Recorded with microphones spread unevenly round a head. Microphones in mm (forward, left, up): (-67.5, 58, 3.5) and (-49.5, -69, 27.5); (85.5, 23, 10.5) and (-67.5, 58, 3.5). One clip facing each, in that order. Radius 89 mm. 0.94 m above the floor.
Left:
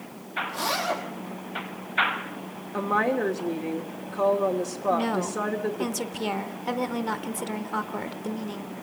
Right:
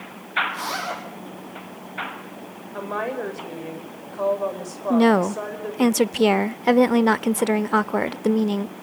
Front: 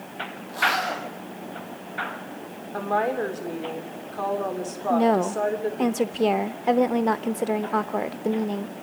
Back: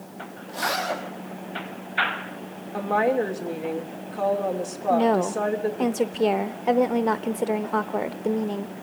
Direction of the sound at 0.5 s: 95° left.